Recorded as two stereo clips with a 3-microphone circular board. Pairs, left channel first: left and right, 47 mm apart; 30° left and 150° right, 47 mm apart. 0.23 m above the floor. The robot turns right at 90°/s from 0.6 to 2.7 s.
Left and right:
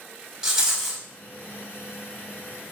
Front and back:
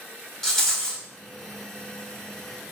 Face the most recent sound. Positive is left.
turn(degrees=155)